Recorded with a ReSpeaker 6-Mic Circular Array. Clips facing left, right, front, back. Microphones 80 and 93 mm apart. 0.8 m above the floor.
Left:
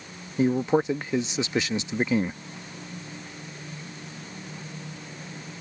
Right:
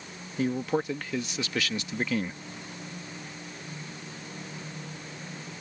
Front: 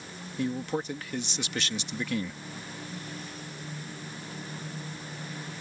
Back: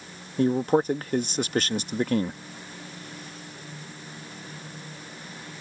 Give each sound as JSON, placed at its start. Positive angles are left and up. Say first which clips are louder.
{"t": 0.4, "sound": "a man speaking", "louder": "left 6 dB, back 9 dB", "azimuth_deg": 155}